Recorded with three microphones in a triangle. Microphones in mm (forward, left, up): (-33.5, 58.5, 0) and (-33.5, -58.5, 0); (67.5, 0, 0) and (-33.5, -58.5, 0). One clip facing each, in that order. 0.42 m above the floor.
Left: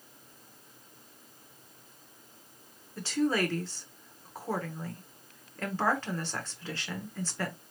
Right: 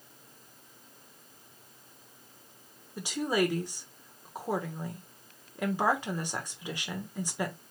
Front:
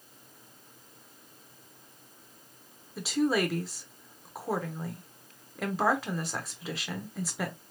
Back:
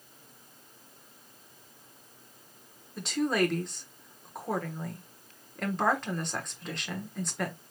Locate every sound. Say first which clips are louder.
3.0 s a woman speaking: even, front 1 dB; 45° right, 1.0 m